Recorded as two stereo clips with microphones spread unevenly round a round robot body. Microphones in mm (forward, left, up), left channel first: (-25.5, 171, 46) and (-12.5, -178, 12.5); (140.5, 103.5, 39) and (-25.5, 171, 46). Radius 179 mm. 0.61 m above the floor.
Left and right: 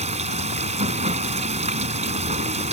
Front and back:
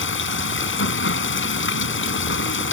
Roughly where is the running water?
Ahead.